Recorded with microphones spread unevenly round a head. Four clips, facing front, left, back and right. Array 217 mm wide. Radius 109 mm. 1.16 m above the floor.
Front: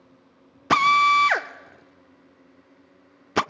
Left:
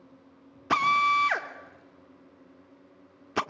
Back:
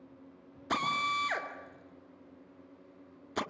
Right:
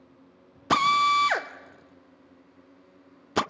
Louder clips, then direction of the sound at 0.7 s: Right 2 dB, front 14 dB; 30° right.